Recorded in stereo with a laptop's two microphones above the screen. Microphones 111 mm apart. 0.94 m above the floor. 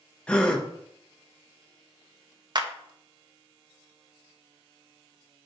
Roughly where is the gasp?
Centre.